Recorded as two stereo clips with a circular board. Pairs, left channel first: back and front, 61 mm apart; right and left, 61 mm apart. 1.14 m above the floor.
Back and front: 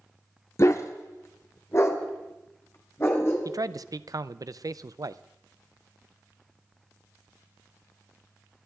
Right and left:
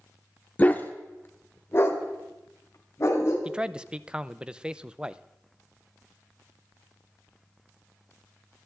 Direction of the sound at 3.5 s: 15° left.